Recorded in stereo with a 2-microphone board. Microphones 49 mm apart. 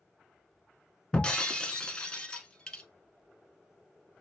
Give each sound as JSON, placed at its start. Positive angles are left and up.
{"t": 1.1, "sound": "breaking glass", "side_deg": 20, "distance_m": 0.8}